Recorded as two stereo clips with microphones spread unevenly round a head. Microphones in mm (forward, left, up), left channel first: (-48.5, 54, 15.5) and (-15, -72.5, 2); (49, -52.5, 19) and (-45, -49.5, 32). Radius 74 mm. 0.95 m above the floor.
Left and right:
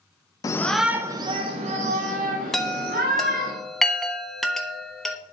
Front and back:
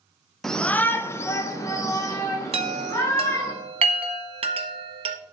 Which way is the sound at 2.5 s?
165° right.